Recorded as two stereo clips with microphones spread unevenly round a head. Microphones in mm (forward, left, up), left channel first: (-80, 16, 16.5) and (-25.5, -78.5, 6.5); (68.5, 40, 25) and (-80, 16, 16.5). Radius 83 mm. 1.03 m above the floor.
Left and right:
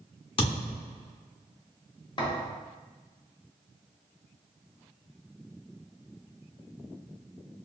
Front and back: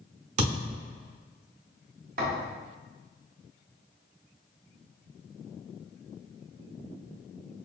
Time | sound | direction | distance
0.4 | a thud | 150° left | 1.1 m
2.2 | a thud | 165° left | 1.3 m